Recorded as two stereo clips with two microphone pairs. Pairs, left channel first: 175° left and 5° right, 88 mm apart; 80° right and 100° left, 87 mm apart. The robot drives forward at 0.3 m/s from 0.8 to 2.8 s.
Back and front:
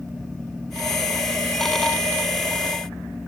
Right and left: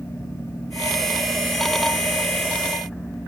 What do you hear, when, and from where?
Only background noise.